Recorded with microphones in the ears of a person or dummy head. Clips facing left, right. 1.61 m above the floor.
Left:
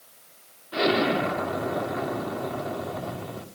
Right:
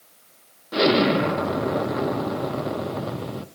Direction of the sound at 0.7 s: 50° right (ahead or behind).